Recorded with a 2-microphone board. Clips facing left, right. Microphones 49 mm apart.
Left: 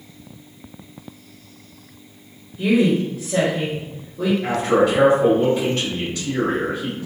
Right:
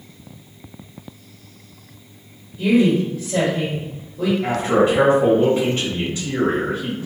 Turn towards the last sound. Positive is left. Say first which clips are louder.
# even
turn(degrees=-15)  # may be behind; listen again after turning